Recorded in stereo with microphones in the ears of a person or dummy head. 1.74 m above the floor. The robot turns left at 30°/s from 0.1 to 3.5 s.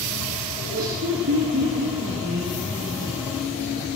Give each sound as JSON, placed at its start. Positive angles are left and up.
{"t": 0.6, "sound": "laughter", "azimuth_deg": -85, "distance_m": 2.5}